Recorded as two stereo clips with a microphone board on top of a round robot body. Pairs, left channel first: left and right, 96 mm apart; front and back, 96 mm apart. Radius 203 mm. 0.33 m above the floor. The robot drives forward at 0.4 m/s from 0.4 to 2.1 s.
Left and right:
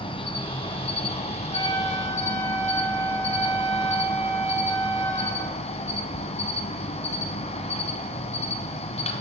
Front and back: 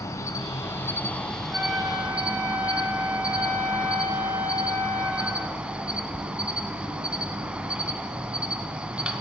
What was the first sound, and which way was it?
An insect, 60° left.